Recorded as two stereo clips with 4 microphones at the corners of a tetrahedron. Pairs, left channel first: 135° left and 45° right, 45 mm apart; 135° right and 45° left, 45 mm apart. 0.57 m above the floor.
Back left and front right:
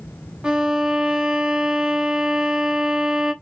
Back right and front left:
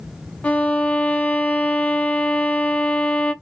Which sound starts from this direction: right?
A violin, at 0.4 s.